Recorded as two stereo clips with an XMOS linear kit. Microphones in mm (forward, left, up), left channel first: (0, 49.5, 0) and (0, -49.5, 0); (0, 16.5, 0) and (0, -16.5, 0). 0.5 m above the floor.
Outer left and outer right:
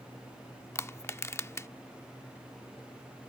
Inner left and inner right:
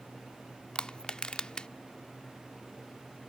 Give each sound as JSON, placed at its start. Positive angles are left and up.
{"t": 0.8, "sound": "crushing", "side_deg": 25}